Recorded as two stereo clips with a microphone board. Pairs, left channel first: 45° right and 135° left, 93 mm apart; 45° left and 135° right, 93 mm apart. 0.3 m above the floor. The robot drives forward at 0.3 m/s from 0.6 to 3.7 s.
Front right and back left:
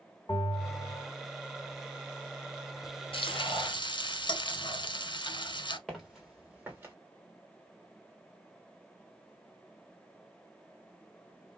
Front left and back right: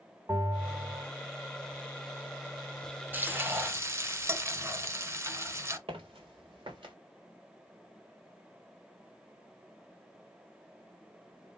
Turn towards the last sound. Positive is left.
turn(degrees=-165)